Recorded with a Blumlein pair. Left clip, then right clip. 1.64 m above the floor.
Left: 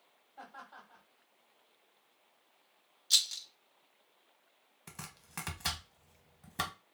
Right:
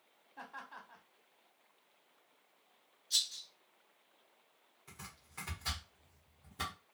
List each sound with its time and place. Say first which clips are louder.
0.4 s laughter: right 1 dB; 40° right, 1.5 m
3.1 s a rattle: left 5 dB; 35° left, 0.6 m
4.9 s chopping: left 3 dB; 40° left, 0.9 m